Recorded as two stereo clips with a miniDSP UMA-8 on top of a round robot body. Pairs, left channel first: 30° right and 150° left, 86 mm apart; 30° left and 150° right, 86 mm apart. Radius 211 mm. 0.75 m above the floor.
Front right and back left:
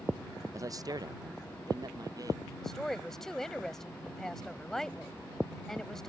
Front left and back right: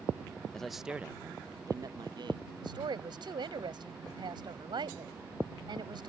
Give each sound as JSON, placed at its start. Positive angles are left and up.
{"t": 0.5, "sound": "a man speaking", "azimuth_deg": 110}
{"t": 2.6, "sound": "a woman speaking", "azimuth_deg": -115}